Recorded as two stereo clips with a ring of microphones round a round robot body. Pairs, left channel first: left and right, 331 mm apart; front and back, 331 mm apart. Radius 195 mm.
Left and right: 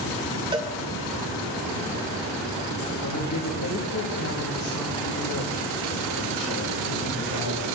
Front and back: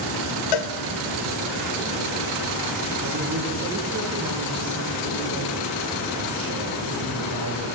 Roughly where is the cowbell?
Ahead.